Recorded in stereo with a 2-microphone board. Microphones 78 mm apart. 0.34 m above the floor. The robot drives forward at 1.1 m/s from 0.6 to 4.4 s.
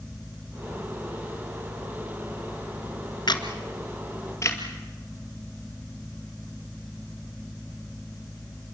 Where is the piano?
I don't hear a piano.